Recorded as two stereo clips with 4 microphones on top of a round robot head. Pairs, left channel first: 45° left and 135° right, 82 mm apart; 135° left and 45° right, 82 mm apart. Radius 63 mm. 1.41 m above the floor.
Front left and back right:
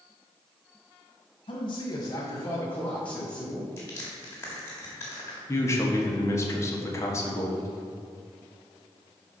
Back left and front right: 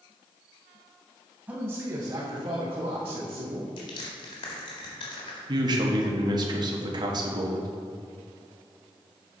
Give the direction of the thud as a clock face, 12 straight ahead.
I don't hear a thud.